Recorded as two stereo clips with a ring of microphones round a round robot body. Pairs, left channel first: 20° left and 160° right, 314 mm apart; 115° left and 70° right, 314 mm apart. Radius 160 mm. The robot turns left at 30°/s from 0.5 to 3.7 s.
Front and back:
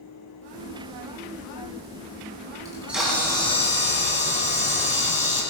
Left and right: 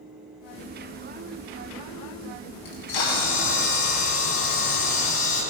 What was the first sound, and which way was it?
A camera shutter, 125° left.